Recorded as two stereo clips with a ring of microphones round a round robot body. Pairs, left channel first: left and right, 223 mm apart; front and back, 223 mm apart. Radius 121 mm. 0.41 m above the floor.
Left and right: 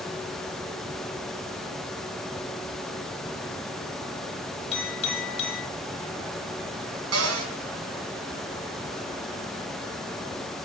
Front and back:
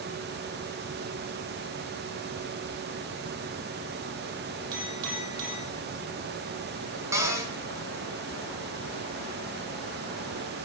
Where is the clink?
155° left, 8 m.